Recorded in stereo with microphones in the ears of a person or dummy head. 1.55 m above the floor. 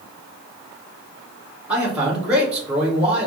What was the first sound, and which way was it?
A man speaking, 5° right (ahead or behind).